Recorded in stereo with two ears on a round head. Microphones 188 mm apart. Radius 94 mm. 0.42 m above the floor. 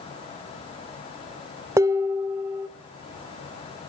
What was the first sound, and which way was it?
Dishes clattering, 15° right (ahead or behind).